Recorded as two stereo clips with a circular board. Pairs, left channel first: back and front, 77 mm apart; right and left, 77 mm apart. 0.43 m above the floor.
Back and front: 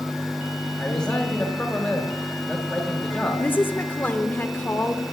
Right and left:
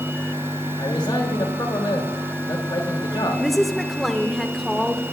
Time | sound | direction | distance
0.8 | a man speaking | 105° right | 1.7 m
3.4 | a woman speaking | 175° right | 0.8 m